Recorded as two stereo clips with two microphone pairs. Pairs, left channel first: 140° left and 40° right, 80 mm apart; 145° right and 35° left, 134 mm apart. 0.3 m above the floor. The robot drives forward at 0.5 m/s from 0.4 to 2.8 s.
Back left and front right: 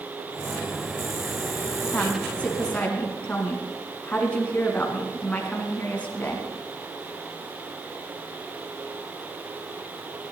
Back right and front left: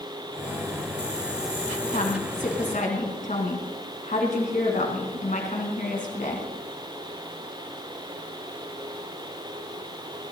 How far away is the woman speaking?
About 2.5 m.